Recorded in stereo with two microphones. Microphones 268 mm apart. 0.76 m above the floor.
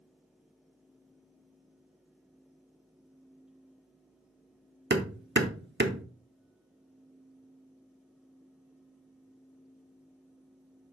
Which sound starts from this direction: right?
Hammering, at 4.9 s.